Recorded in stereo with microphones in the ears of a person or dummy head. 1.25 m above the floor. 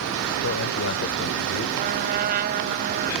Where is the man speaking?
75° left (ahead or behind).